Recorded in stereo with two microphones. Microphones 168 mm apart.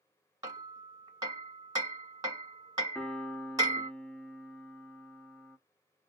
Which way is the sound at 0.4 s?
20° right (ahead or behind).